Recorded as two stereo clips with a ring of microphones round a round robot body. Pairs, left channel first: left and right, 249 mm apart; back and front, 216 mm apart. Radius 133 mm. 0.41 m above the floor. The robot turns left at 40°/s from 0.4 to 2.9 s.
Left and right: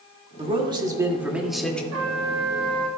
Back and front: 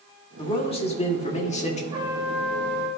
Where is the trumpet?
65° right, 2 m; by 2.9 s 105° right, 2 m.